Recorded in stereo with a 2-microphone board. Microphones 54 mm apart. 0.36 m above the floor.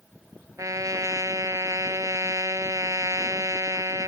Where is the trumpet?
90° right.